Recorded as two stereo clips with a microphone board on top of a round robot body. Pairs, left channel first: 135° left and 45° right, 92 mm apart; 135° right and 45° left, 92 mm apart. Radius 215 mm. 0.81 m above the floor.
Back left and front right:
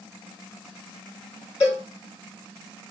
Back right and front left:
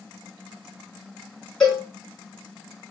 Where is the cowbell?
140° left, 2 m.